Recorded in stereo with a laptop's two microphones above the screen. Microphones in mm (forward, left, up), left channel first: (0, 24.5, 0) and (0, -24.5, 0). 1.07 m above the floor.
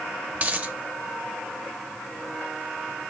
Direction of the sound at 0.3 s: 25° right (ahead or behind).